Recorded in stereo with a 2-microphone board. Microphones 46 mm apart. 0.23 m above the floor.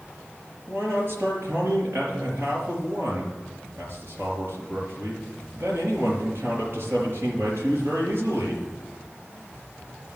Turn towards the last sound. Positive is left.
turn(degrees=-60)  # may be behind; listen again after turning